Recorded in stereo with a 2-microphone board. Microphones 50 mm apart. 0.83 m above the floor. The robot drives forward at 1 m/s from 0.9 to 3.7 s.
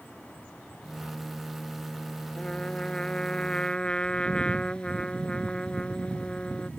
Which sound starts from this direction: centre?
A trumpet, at 2.4 s.